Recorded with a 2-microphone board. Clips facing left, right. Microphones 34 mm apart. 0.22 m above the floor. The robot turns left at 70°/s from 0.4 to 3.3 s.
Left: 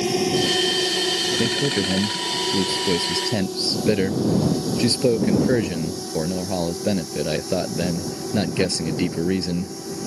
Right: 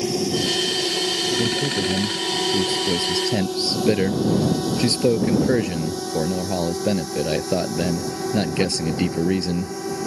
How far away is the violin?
No violin in this recording.